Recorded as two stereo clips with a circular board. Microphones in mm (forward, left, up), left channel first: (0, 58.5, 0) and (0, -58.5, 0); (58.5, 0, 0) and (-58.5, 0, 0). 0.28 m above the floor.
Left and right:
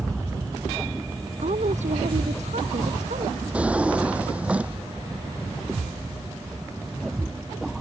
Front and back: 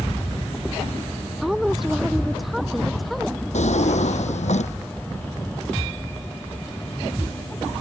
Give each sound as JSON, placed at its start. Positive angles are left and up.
{"t": 1.4, "sound": "a woman speaking", "azimuth_deg": -95}
{"t": 3.5, "sound": "a drawer", "azimuth_deg": -10}